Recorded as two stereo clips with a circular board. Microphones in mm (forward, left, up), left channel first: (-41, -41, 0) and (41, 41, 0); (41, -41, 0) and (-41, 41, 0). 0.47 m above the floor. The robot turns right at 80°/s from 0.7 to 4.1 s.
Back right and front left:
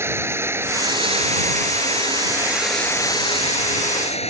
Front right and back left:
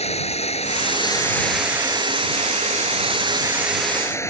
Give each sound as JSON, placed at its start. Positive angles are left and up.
{"t": 0.0, "sound": "running water", "azimuth_deg": -25}